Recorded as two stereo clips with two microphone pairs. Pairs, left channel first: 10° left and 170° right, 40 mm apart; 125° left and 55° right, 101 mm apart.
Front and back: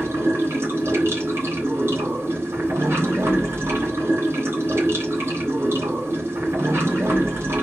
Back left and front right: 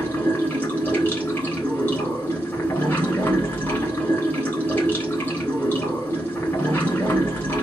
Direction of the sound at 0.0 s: 165° right.